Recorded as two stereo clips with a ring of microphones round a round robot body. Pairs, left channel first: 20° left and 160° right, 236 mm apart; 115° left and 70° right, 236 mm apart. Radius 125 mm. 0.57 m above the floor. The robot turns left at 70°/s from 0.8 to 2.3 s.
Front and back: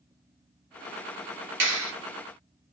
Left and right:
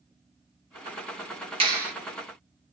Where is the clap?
130° right, 1.4 m; by 1.9 s 155° right, 1.4 m.